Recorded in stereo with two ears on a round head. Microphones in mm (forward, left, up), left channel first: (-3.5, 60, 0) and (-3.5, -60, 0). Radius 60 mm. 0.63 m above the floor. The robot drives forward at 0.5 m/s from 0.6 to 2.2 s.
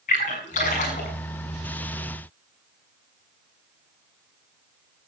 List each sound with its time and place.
0.1 s a splash: 55° left (ahead or behind), 7 m; by 1.1 s 60° left (ahead or behind), 6.5 m